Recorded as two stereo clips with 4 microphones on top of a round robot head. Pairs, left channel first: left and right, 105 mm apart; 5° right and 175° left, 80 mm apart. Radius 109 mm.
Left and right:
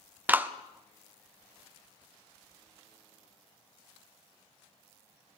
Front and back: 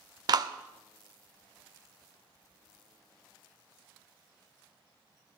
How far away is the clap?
About 0.9 m.